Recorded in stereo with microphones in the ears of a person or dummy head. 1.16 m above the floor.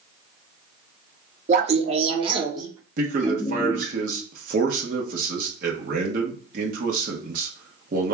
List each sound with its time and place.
1.5 s laughter: 45° right (ahead or behind), 0.8 m; by 4.0 s 10° right (ahead or behind), 1.5 m
3.0 s a man speaking: 55° right (ahead or behind), 1.1 m